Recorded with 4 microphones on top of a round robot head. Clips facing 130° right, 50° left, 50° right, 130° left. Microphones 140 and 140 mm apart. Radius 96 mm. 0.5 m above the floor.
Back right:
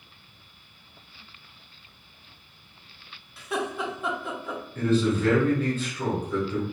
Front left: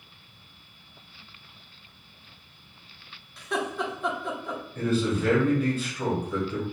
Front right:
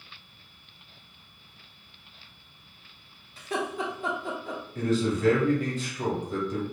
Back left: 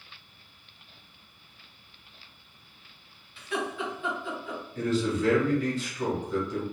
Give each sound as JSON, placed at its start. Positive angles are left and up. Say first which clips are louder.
{"t": 3.4, "sound": "laughter", "louder": "even, front right 1 dB", "azimuth_deg": -45, "distance_m": 0.9}
{"t": 4.8, "sound": "a man speaking", "louder": "back right 3 dB, front right 1 dB", "azimuth_deg": -25, "distance_m": 1.2}